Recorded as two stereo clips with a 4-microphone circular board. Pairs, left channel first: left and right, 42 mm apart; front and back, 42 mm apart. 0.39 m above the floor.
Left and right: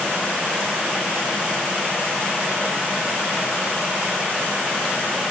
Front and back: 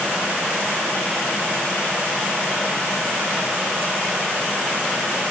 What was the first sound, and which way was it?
Only background noise.